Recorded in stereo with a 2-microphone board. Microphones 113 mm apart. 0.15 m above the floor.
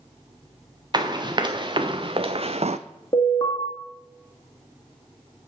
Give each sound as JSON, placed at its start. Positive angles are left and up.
{"t": 0.9, "sound": "running footsteps", "side_deg": -40, "distance_m": 1.7}
{"t": 3.1, "sound": "an alarm", "side_deg": 35, "distance_m": 1.8}